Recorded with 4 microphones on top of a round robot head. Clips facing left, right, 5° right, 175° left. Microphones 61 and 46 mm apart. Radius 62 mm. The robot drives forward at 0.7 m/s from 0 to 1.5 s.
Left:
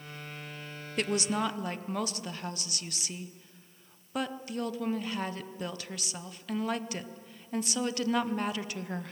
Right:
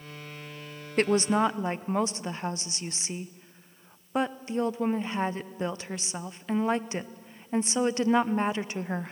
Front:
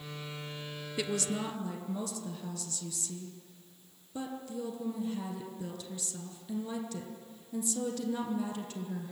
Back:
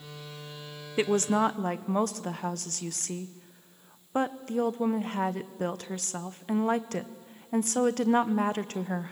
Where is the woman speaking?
130° right, 0.6 m; by 9.1 s 155° right, 0.8 m.